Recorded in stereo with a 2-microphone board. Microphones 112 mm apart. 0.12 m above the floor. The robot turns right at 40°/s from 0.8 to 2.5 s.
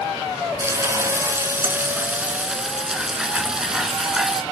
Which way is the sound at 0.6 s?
25° right (ahead or behind).